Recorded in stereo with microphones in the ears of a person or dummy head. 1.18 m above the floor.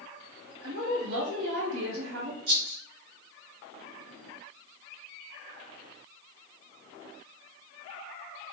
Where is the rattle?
55° right (ahead or behind), 1.3 m.